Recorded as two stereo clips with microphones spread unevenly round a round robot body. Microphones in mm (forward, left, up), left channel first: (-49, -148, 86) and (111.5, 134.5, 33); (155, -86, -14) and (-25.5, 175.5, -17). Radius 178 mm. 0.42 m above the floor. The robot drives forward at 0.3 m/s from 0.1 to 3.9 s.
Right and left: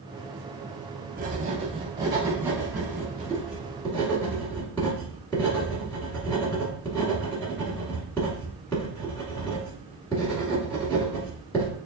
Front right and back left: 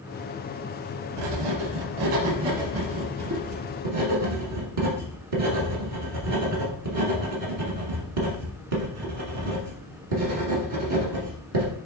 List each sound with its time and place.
1.2 s writing: 125° left, 0.7 m; by 11.8 s 155° left, 1.4 m